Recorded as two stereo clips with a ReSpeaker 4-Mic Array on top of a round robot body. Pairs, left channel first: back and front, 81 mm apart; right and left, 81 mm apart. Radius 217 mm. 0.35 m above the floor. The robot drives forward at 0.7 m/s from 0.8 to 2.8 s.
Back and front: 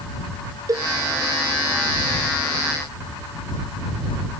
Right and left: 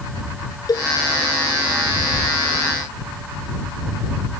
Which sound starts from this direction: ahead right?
A cowbell, at 0.7 s.